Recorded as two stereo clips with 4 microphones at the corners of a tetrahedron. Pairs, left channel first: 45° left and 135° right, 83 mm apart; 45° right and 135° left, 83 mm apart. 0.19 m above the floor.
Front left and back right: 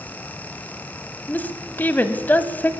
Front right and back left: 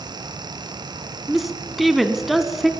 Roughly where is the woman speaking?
Ahead left.